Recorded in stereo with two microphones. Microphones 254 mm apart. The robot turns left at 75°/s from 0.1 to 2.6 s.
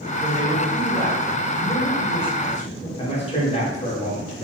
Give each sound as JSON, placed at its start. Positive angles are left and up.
{"t": 0.2, "sound": "a man speaking", "azimuth_deg": -60, "distance_m": 1.6}
{"t": 3.0, "sound": "a man speaking", "side_deg": 25, "distance_m": 1.6}